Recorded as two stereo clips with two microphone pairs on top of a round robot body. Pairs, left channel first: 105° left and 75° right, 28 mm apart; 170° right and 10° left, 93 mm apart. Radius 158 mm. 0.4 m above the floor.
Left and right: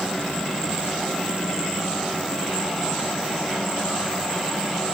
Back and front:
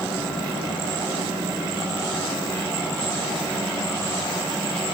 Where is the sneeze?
No sneeze in this recording.